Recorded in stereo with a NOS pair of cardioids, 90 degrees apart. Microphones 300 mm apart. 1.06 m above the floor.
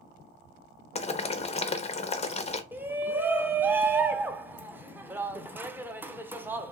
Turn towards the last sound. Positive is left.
turn(degrees=-5)